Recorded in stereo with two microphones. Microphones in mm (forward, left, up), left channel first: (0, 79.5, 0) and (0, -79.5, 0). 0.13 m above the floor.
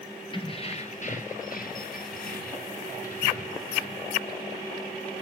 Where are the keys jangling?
30° left (ahead or behind), 1.9 m; by 4.2 s 55° left (ahead or behind), 4 m.